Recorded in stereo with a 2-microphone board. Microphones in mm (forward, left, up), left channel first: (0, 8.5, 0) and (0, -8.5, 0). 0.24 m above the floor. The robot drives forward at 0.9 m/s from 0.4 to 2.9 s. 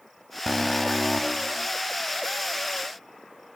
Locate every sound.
0.5 s an alarm: 10° left (ahead or behind), 1.6 m; by 1.7 s 5° left (ahead or behind), 2.5 m